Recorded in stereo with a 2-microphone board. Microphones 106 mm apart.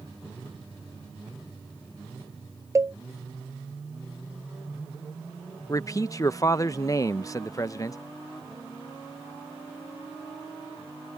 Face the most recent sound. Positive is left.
turn(degrees=35)  # may be behind; listen again after turning